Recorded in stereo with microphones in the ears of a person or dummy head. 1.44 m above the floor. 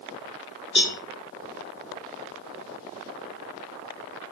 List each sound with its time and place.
0.8 s a cowbell: 30° left (ahead or behind), 1.8 m